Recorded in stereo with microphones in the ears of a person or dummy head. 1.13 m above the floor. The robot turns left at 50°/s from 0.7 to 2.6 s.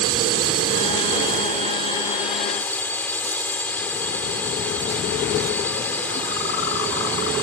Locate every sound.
0.0 s a drone: 95° right; by 7.5 s 170° left